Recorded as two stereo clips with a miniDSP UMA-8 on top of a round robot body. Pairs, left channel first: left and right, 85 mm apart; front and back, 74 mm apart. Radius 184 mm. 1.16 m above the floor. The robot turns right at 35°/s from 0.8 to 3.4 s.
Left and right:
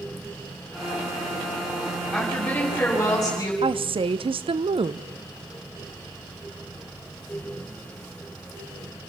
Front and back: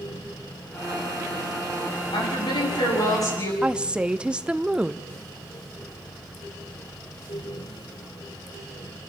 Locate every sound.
2.1 s a woman speaking: 5° right, 9 m; by 3.5 s 40° left, 9 m
3.6 s a woman speaking: 105° right, 0.8 m